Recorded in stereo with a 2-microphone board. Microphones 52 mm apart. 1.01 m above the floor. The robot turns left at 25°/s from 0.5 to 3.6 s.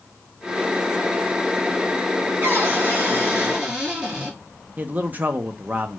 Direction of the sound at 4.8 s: 35° right (ahead or behind).